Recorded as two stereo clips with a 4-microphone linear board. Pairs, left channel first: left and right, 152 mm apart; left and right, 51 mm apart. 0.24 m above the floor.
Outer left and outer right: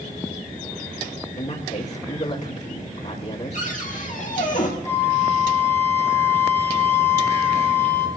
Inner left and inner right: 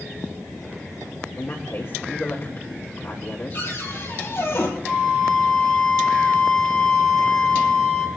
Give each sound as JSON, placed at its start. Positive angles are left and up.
{"t": 1.4, "sound": "a man speaking", "side_deg": 50, "distance_m": 5.5}
{"t": 3.5, "sound": "a cupboard door", "side_deg": 55, "distance_m": 3.0}
{"t": 4.8, "sound": "a flute", "side_deg": 15, "distance_m": 2.5}